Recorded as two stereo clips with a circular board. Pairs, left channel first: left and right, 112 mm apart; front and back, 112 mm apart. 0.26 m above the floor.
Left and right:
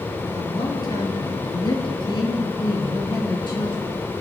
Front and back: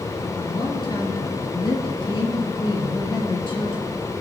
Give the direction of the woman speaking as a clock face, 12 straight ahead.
11 o'clock.